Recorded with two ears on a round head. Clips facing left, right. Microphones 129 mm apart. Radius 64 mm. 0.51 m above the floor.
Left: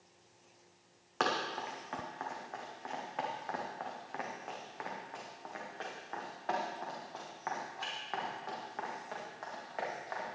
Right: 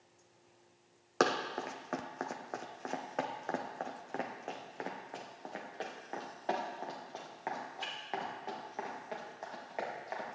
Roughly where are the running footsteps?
Right.